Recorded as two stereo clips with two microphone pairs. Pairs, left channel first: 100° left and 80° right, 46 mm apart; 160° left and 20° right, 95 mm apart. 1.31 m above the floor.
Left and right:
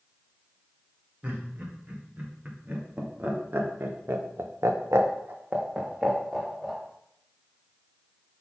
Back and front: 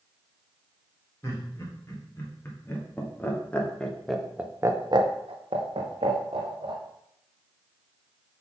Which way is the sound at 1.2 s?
140° right.